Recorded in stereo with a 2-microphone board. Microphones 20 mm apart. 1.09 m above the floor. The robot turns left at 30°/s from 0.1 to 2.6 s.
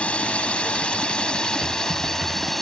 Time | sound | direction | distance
0.0 | a drone | 85° left | ?
1.6 | typing on a keyboard | 5° right (ahead or behind) | ?